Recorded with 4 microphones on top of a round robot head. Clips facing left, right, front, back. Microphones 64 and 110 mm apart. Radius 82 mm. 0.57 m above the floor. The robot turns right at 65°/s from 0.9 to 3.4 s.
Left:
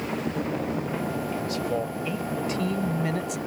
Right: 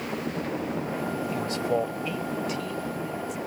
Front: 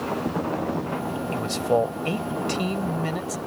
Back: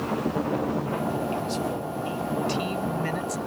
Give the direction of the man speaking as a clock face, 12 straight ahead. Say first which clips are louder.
Right 3 dB, front 5 dB; 1 o'clock.